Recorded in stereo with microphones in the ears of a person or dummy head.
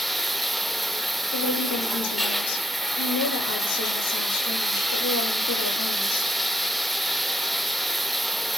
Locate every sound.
0.0 s running water: 5° left (ahead or behind), 1.0 m
1.3 s a woman speaking: 75° left (ahead or behind), 8 m